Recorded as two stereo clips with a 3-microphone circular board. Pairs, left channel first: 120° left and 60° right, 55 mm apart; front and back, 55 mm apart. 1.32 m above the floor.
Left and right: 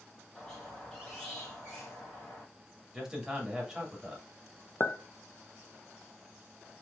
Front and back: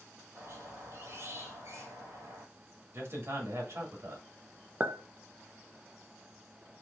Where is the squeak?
165° right, 2.5 m.